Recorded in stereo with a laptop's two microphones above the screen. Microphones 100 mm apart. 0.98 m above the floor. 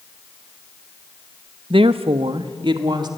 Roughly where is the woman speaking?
Right.